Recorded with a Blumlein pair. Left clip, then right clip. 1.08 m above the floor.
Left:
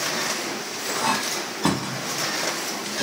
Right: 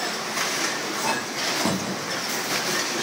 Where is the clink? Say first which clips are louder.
Left 2 dB; 15° left, 1.0 m.